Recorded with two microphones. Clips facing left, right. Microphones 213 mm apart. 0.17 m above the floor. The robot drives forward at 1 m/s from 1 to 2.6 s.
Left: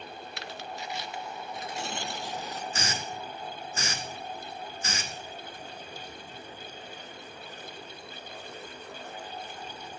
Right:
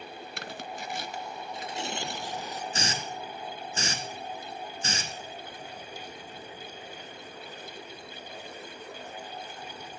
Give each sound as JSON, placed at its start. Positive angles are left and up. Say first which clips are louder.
{"t": 0.4, "sound": "tearing paper", "louder": "right 1 dB", "side_deg": -50, "distance_m": 0.6}
{"t": 2.7, "sound": "a hiss", "louder": "right 1 dB", "side_deg": -30, "distance_m": 1.6}